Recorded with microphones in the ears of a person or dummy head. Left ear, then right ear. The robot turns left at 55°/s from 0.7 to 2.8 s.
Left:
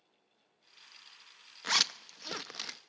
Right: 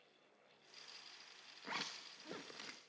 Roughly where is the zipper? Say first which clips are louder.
Left 16 dB; left.